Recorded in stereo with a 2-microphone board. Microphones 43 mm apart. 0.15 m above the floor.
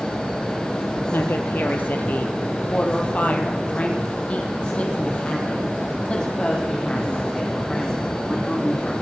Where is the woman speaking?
60° left (ahead or behind), 4 m; by 8.9 s 15° left (ahead or behind), 8.5 m.